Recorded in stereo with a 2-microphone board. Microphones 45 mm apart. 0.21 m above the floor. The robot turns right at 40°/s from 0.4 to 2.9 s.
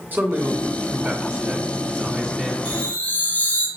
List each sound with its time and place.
0.1 s a man speaking: 70° right, 2 m; by 2.5 s 15° left, 2 m
2.6 s a chime: 45° left (ahead or behind), 1.8 m; by 3.7 s 35° left (ahead or behind), 1.8 m